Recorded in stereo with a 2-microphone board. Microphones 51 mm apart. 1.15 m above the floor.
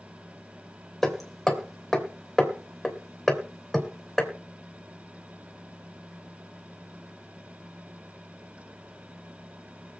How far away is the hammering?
About 3 m.